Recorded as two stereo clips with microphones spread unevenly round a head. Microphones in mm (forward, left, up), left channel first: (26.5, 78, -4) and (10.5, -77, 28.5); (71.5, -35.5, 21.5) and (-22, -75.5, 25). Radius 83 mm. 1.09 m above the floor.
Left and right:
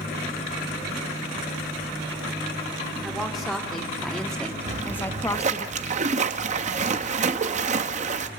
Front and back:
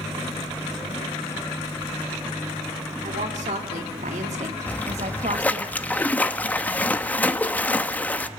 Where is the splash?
50° right, 1.0 m.